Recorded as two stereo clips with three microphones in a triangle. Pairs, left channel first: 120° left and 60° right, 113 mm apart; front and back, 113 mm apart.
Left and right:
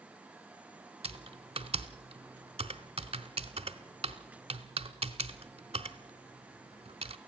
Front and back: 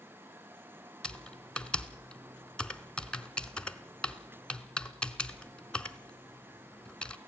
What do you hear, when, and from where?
1.0 s typing on a keyboard: 80° right, 0.8 m